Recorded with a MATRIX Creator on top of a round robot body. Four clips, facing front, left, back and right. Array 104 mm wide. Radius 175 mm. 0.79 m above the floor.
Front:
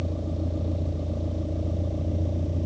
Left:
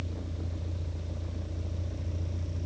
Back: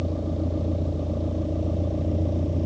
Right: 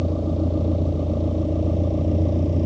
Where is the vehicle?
105° right.